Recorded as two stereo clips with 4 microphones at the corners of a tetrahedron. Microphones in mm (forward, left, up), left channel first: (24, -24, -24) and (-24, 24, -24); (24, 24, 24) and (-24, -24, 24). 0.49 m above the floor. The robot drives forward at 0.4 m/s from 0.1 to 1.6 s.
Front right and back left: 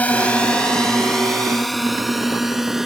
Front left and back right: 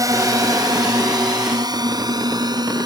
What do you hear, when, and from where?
0.0 s a drone: 110° right; by 2.9 s 140° right